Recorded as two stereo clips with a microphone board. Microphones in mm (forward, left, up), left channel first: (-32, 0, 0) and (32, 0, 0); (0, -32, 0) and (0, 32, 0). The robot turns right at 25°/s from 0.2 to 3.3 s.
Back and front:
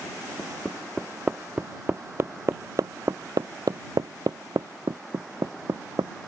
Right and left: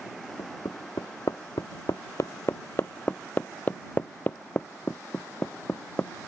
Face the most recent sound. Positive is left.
turn(degrees=-25)